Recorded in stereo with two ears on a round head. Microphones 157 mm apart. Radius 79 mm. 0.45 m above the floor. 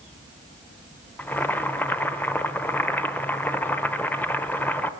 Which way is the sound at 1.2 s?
10° left (ahead or behind).